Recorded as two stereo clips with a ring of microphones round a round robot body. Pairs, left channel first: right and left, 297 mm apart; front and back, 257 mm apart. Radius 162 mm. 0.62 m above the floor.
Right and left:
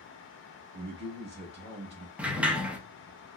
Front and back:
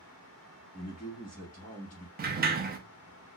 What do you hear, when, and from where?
0.7 s a man speaking: 45° left, 1.2 m
2.2 s a sliding door: 175° left, 0.6 m